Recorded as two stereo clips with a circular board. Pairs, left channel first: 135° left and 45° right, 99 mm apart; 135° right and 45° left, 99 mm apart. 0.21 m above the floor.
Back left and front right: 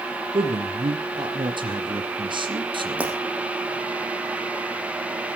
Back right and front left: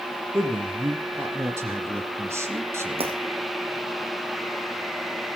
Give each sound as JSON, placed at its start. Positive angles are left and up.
{"t": 0.3, "sound": "a man speaking", "azimuth_deg": -15, "distance_m": 3.0}
{"t": 3.0, "sound": "breaking glass", "azimuth_deg": 30, "distance_m": 5.5}